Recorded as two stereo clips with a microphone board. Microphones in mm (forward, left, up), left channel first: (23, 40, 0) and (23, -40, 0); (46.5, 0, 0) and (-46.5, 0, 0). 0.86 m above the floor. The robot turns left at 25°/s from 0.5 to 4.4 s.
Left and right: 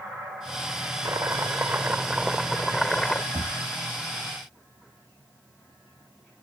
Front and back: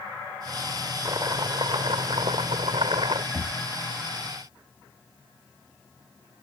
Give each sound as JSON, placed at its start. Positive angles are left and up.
{"t": 1.1, "sound": "chopping", "azimuth_deg": -140}
{"t": 3.3, "sound": "knocking", "azimuth_deg": -105}